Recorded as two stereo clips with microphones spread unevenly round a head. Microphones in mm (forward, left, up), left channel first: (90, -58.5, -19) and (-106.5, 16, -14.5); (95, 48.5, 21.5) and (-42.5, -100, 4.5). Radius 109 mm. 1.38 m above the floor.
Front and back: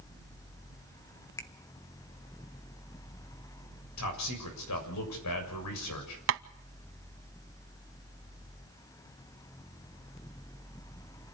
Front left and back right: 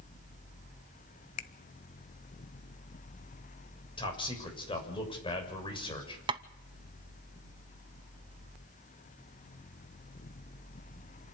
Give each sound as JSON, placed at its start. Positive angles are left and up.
{"t": 1.4, "sound": "a finger snap", "azimuth_deg": 55, "distance_m": 0.9}
{"t": 4.0, "sound": "a man speaking", "azimuth_deg": -20, "distance_m": 7.0}
{"t": 6.3, "sound": "tapping", "azimuth_deg": 165, "distance_m": 0.7}